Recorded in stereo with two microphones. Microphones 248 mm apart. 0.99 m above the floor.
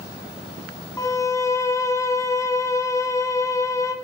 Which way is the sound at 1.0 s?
10° left (ahead or behind).